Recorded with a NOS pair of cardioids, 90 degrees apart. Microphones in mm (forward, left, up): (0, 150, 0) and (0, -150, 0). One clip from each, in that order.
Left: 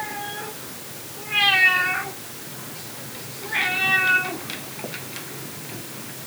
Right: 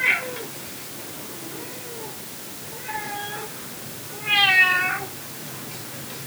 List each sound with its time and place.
Only background noise.